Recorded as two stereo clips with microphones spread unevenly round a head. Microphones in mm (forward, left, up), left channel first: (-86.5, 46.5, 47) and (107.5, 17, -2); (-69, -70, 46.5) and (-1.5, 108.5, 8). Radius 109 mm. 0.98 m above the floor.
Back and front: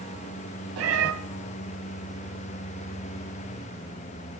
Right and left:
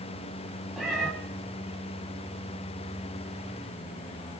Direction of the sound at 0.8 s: 30° right.